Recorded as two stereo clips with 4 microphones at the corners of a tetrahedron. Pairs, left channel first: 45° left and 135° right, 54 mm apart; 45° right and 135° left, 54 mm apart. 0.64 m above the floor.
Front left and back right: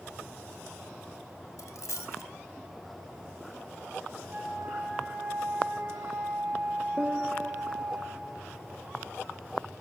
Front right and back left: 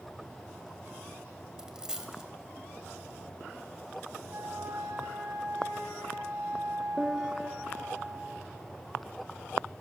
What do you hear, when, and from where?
1.6 s a dropped coin: 60° left, 1.6 m
4.3 s a flute: 165° left, 4.5 m
7.0 s a piano: 145° right, 1.2 m